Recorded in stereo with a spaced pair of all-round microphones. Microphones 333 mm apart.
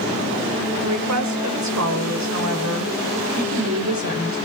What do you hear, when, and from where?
0.7 s a woman speaking: 55° right (ahead or behind), 4.5 m